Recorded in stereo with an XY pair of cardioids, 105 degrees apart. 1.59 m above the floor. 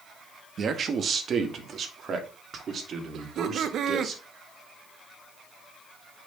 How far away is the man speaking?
About 2.0 m.